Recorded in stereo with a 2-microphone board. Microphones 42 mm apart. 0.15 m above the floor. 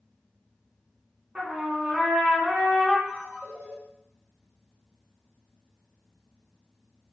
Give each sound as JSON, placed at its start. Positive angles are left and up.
{"t": 1.4, "sound": "a trumpet", "side_deg": -20, "distance_m": 1.2}
{"t": 3.1, "sound": "a ringtone", "side_deg": -60, "distance_m": 1.3}